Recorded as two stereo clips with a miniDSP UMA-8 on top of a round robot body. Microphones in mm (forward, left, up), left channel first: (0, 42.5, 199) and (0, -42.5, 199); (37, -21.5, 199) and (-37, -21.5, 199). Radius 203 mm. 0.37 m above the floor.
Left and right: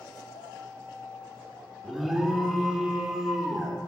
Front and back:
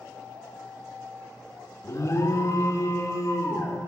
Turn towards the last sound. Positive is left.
turn(degrees=-5)